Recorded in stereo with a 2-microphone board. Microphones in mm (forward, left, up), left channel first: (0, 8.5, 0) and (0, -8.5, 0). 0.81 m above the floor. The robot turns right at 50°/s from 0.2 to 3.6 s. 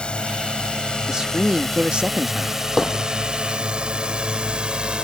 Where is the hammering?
Centre (ahead or behind); by 3.0 s 10° left (ahead or behind).